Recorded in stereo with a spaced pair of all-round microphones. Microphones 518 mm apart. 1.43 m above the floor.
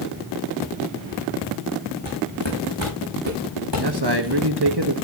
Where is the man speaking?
50° right (ahead or behind), 1.5 m.